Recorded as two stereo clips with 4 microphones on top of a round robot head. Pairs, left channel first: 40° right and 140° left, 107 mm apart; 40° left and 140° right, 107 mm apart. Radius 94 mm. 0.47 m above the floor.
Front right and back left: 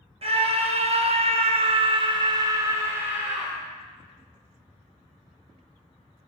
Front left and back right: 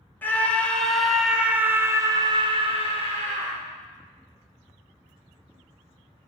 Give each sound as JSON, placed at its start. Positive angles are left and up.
{"t": 0.2, "sound": "a scream", "azimuth_deg": 115, "distance_m": 3.0}